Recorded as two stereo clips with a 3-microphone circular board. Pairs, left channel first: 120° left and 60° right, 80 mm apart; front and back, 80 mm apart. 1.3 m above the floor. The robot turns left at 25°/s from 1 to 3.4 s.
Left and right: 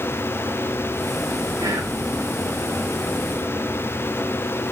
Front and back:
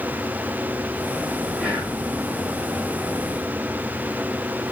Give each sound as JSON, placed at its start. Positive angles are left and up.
{"t": 1.6, "sound": "whispering", "azimuth_deg": -105, "distance_m": 3.0}